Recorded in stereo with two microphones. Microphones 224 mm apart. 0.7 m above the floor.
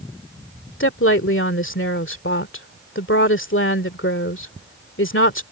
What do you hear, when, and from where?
0.8 s a woman speaking: 65° left (ahead or behind)